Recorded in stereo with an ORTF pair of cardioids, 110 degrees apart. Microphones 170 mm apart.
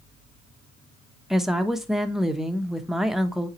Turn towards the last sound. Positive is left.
turn(degrees=0)